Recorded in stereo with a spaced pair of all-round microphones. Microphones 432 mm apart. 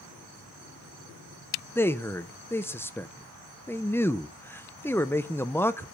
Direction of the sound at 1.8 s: 5° left (ahead or behind).